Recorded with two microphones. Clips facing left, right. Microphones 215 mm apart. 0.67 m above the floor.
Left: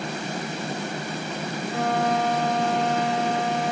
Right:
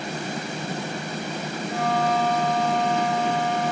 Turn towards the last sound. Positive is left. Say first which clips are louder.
# even
turn(degrees=85)